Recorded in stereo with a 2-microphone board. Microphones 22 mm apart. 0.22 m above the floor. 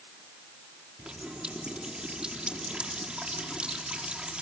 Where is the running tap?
50° right (ahead or behind), 4 m.